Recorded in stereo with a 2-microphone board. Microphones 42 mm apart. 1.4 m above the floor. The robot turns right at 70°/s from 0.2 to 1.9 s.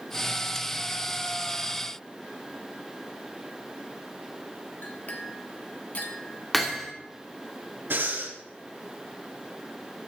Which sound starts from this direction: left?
A clink, at 4.8 s.